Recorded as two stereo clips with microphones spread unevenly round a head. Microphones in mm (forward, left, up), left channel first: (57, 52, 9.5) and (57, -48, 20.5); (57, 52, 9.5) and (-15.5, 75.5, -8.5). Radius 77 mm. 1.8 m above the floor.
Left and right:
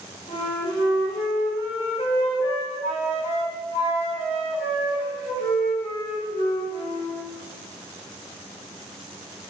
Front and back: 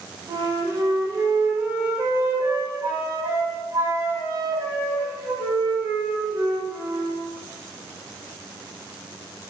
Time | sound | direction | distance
0.3 | a flute | 105° left | 1.8 m